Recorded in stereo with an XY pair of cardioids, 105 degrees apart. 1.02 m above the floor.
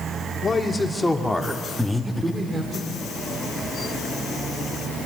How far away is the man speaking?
About 2.5 m.